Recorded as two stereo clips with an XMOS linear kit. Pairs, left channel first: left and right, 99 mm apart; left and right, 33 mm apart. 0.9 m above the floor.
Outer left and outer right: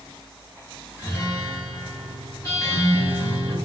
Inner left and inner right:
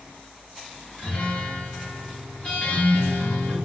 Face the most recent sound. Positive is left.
turn(degrees=30)  # may be behind; listen again after turning